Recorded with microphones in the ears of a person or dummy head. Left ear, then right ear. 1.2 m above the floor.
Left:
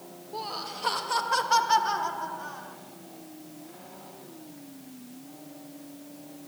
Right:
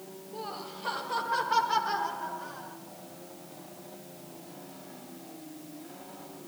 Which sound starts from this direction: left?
Laughter, at 0.3 s.